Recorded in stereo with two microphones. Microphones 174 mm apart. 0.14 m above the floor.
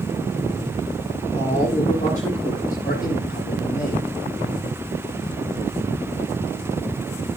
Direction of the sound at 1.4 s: 40° left (ahead or behind).